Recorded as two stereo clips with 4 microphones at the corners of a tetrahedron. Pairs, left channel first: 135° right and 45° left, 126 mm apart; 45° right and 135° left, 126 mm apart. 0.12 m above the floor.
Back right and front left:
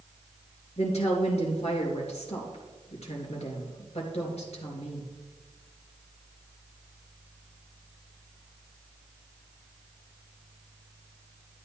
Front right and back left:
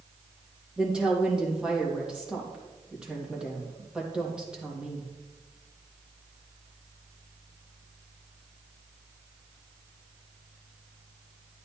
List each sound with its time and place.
0.8 s a woman speaking: 145° right, 3 m